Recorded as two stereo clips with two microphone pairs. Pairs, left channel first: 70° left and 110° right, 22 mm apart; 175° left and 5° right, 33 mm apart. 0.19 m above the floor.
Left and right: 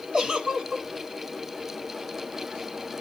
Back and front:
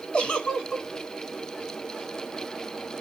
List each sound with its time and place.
0.1 s a giggle: 140° right, 1.0 m